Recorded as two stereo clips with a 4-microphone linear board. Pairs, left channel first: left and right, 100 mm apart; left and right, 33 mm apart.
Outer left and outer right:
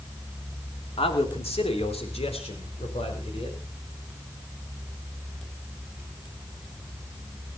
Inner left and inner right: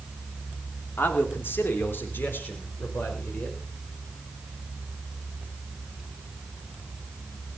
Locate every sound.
1.0 s a man speaking: 70° left (ahead or behind), 3 m